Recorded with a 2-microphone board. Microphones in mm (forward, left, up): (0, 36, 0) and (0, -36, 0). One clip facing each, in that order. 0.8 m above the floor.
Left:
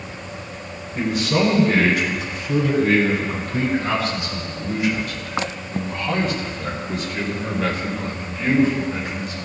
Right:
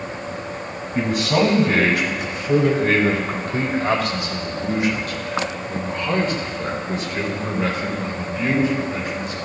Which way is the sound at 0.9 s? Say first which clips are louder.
Right 1 dB; 80° right.